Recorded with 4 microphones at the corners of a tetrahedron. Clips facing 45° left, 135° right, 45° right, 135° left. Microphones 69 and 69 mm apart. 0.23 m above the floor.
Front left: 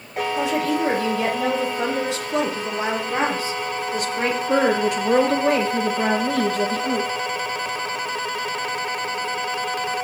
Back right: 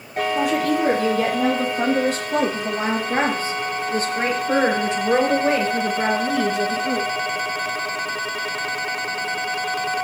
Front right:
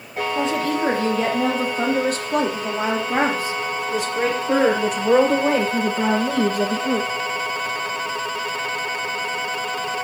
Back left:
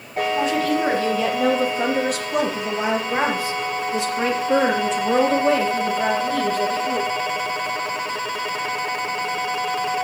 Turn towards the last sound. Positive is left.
turn(degrees=-50)